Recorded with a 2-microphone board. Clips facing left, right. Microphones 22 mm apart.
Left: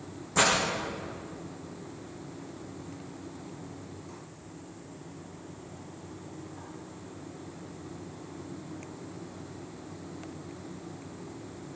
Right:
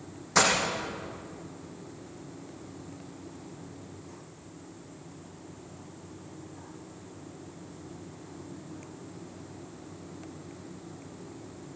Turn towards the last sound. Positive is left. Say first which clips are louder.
# right 1 dB
turn(degrees=-75)  # may be behind; listen again after turning